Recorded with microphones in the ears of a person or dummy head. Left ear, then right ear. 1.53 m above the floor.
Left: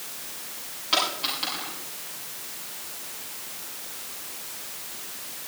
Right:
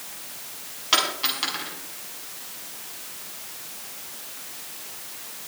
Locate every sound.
0.9 s a dropped coin: 10° right (ahead or behind), 7.5 m